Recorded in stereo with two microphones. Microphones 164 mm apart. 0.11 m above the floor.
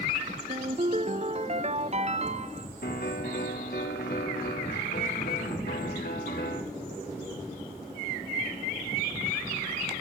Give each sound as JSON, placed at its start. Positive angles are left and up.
{"t": 0.5, "sound": "a ringtone", "side_deg": -45, "distance_m": 0.8}
{"t": 2.8, "sound": "a piano", "side_deg": 70, "distance_m": 4.5}